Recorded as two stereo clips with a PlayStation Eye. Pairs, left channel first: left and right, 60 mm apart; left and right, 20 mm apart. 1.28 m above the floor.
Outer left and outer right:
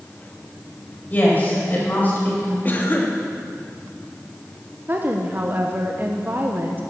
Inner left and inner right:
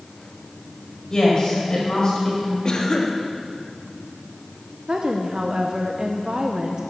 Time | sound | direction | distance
1.1 | a woman speaking | 35° left (ahead or behind) | 5 m
2.6 | a cough | 35° left (ahead or behind) | 2 m
4.9 | a woman speaking | 35° right (ahead or behind) | 0.8 m